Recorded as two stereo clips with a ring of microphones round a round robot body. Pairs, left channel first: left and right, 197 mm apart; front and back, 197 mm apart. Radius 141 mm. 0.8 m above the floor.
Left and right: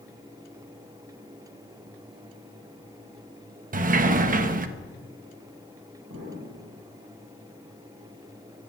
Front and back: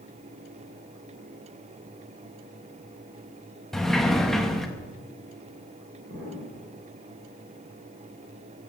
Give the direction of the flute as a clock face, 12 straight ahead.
I don't hear a flute.